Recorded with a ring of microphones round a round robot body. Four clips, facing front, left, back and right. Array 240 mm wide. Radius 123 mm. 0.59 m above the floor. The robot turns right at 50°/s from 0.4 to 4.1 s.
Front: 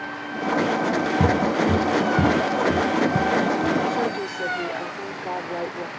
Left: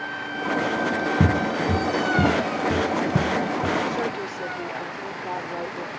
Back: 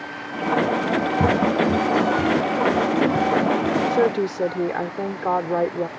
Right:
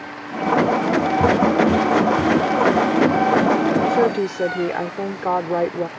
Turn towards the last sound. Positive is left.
turn(degrees=-130)